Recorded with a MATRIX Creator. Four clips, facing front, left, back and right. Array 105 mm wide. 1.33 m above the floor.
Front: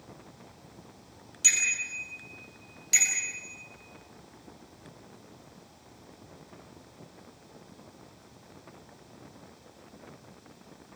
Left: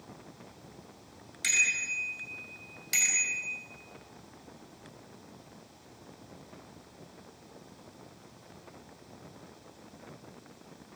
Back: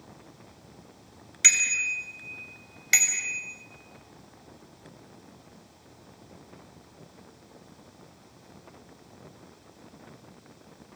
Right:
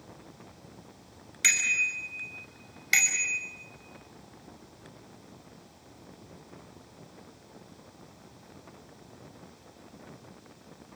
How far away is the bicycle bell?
About 6 m.